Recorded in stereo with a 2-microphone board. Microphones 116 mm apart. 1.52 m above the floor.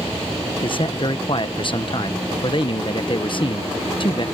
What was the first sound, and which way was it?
A man speaking, 50° left (ahead or behind).